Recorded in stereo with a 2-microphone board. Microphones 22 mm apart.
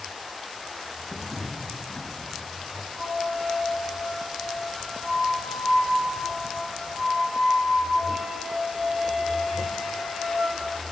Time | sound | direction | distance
1.1 | footsteps | 15° right (ahead or behind) | 4.5 m
3.0 | a flute | 90° right | 4.5 m